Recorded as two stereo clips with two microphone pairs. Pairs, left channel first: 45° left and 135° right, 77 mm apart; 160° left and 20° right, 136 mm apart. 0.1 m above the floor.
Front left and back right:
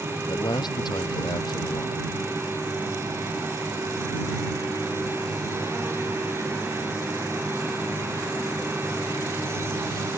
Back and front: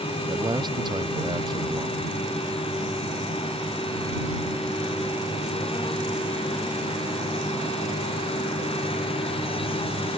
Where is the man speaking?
40° left.